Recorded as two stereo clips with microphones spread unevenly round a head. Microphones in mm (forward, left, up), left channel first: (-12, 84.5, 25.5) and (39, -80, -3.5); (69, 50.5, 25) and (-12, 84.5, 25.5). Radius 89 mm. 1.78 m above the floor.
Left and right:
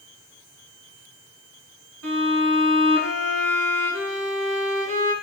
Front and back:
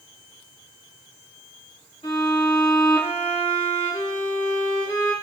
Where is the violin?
80° right, 1.6 m.